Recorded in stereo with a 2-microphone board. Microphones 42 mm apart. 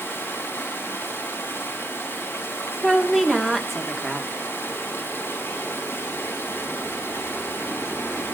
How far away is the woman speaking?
About 2.5 m.